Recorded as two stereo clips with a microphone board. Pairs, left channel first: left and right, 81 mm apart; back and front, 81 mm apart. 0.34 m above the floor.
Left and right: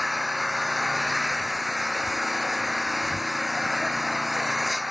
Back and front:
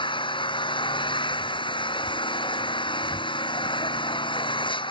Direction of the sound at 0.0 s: Straight behind.